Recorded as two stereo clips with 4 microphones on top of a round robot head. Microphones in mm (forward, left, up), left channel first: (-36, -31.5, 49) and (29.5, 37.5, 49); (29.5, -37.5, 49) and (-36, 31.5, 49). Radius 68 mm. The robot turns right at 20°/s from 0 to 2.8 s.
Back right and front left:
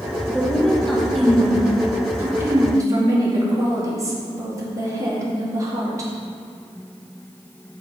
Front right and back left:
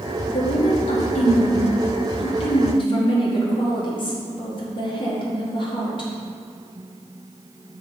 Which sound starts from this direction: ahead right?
A woman speaking, at 0.3 s.